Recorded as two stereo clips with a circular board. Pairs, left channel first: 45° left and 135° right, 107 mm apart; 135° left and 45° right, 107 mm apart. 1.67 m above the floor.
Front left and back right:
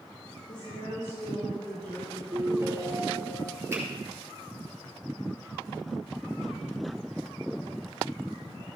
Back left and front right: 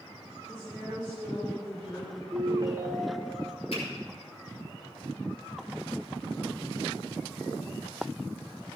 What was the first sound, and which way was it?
A woman speaking, 65° left.